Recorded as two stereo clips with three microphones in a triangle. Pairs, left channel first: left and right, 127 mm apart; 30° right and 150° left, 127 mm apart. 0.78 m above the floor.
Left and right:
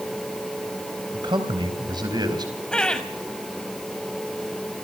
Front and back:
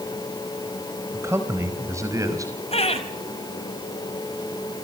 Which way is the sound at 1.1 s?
140° right.